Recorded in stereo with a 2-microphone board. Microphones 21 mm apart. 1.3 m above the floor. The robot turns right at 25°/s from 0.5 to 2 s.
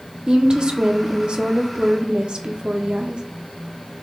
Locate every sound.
0.3 s a woman speaking: 125° right, 0.6 m; by 3.2 s 90° right, 0.6 m